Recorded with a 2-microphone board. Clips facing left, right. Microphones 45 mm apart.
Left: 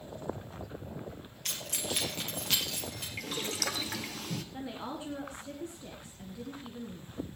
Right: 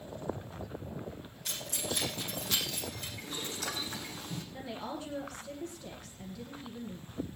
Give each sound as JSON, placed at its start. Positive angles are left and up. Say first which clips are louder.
{"t": 1.4, "sound": "keys jangling", "louder": "left 1 dB", "side_deg": 75, "distance_m": 3.0}
{"t": 3.2, "sound": "boiling", "louder": "left 6 dB", "side_deg": 80, "distance_m": 1.3}
{"t": 4.5, "sound": "a woman speaking", "louder": "left 1 dB", "side_deg": 20, "distance_m": 1.9}